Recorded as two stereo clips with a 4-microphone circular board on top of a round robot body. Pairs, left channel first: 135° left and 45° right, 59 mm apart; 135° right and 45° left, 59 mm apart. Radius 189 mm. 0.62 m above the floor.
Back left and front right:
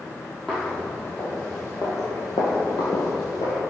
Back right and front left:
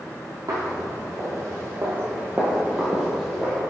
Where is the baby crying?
I don't hear a baby crying.